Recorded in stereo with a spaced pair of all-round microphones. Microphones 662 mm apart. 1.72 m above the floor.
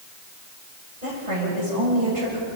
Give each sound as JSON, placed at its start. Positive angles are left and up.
{"t": 1.0, "sound": "a woman speaking", "side_deg": -75, "distance_m": 8.0}